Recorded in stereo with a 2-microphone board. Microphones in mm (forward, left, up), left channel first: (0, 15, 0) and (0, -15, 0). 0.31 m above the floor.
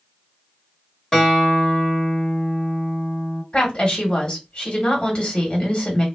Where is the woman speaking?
30° left (ahead or behind), 1.3 m.